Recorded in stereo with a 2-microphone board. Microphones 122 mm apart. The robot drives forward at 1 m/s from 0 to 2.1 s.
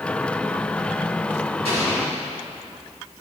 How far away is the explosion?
About 3.5 m.